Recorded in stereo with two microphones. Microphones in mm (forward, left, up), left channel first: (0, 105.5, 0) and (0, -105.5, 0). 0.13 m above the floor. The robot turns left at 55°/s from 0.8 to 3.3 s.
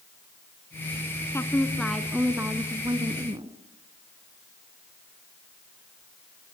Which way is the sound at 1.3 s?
15° left (ahead or behind).